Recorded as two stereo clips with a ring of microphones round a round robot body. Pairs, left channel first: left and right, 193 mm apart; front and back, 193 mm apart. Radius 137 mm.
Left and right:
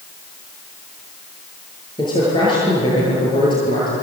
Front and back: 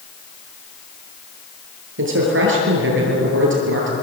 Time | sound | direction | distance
2.0 | a man speaking | 165° left | 9 m